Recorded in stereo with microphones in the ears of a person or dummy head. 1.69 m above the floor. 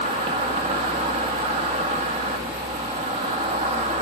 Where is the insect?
30° right (ahead or behind), 1.6 m.